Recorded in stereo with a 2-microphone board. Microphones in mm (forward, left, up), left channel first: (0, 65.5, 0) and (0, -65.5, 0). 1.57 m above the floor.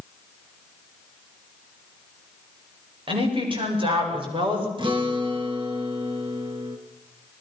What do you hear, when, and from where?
3.1 s a woman speaking: 40° right (ahead or behind), 6.5 m
4.8 s a guitar: 40° right (ahead or behind), 2.5 m